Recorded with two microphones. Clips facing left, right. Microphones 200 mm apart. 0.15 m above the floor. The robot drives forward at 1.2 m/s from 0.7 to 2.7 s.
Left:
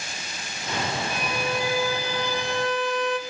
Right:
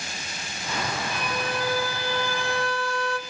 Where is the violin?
10° left (ahead or behind), 3 m; by 3.2 s 20° left (ahead or behind), 1.4 m.